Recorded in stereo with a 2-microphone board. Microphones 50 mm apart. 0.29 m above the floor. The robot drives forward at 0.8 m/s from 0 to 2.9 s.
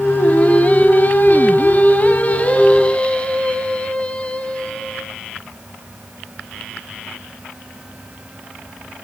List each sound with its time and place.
0.2 s singing: 30° left (ahead or behind), 1.4 m; by 5.1 s 25° left (ahead or behind), 1.5 m